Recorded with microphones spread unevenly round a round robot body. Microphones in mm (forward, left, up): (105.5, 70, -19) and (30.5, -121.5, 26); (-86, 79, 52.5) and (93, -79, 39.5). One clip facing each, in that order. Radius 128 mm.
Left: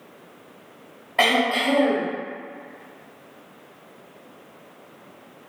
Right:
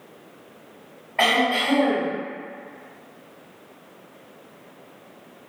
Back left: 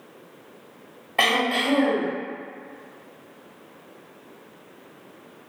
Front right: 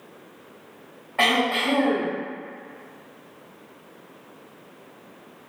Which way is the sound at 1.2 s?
105° left.